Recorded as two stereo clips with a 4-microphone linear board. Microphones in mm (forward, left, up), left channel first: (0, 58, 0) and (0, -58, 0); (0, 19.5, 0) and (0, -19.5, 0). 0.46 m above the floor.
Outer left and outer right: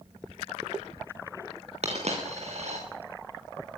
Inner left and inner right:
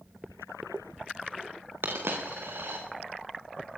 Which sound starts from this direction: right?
A dropped coin, at 1.8 s.